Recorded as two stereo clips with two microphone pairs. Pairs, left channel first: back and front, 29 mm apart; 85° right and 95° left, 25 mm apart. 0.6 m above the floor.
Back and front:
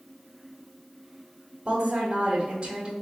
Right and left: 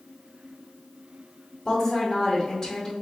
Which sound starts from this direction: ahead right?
A woman speaking, at 1.6 s.